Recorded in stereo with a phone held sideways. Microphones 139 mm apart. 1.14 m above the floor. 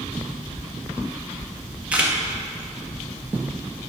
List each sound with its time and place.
1.9 s a camera shutter: 10° right (ahead or behind), 1.2 m